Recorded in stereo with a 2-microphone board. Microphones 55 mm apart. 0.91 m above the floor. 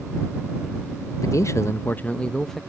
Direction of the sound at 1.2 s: 65° left (ahead or behind).